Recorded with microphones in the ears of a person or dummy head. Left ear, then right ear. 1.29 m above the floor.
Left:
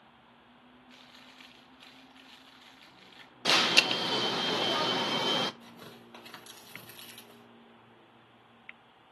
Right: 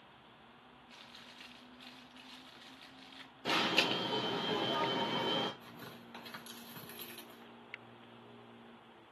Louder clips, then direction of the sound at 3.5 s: Left 7 dB; 50° left (ahead or behind).